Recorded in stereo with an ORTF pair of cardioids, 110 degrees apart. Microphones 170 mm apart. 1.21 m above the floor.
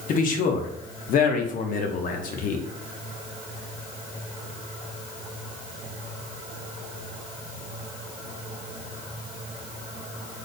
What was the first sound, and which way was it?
A man speaking, 55° left.